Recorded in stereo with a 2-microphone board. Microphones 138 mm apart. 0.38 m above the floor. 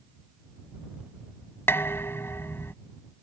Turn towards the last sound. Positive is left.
turn(degrees=15)  # may be behind; listen again after turning